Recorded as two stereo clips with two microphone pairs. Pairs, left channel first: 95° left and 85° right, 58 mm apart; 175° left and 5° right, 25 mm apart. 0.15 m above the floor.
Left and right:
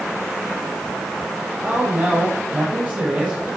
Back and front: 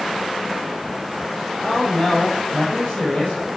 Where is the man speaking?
145° right, 5 m.